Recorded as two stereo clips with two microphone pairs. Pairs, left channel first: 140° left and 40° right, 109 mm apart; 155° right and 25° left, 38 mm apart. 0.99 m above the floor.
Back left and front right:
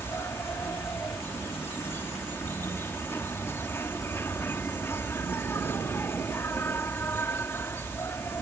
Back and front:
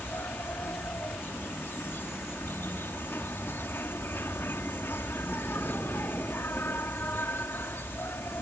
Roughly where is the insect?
Behind right.